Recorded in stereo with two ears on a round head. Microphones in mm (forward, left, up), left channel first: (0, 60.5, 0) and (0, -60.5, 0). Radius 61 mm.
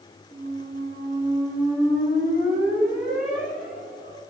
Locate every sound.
0.3 s a squeak: 55° left (ahead or behind), 1.5 m